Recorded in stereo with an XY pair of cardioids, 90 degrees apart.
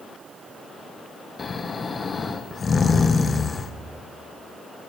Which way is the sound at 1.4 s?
40° left.